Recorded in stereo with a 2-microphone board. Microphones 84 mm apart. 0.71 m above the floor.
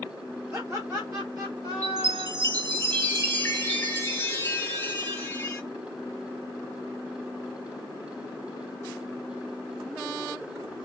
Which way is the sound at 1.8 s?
30° left (ahead or behind).